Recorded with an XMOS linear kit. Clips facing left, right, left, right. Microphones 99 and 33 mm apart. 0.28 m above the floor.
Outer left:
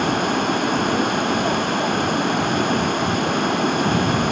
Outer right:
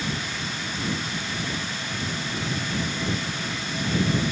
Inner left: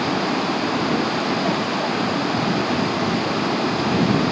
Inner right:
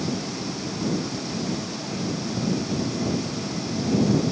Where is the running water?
60° left (ahead or behind).